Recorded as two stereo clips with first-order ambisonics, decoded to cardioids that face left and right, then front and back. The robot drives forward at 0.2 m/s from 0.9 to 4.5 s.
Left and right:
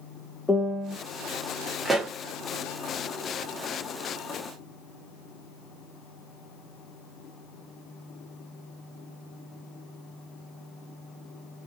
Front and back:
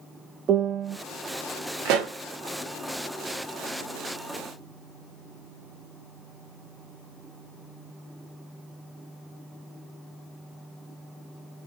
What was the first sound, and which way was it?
A piano, 170° left.